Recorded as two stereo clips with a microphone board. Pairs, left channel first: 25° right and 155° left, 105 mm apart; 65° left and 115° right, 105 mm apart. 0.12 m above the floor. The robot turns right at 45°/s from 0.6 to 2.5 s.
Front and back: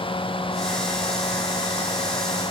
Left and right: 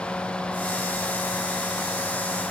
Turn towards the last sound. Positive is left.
No sound to turn to.